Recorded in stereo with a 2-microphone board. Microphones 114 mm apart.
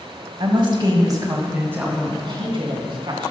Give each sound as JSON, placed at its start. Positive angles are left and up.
{"t": 0.4, "sound": "a woman speaking", "side_deg": -50, "distance_m": 1.8}
{"t": 2.2, "sound": "a woman speaking", "side_deg": -45, "distance_m": 2.5}